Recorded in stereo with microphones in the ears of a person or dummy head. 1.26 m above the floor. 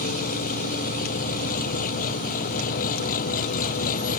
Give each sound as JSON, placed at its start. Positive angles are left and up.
{"t": 0.0, "sound": "an engine running", "side_deg": 40}